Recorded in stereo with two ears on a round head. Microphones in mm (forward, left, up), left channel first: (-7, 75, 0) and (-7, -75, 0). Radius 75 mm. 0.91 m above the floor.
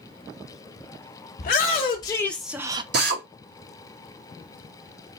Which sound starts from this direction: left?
A shout, at 1.4 s.